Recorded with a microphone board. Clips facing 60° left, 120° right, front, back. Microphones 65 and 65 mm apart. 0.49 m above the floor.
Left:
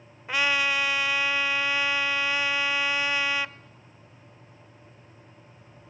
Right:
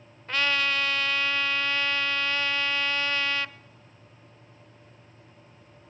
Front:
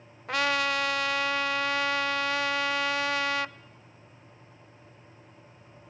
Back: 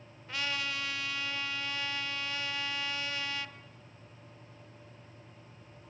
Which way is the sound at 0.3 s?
15° right.